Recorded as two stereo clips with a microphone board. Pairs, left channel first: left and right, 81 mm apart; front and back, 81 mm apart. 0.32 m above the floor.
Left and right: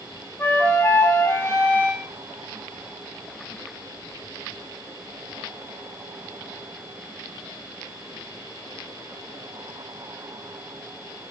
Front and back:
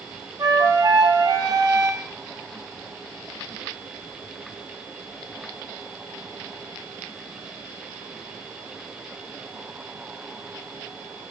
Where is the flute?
150° left, 1.2 m.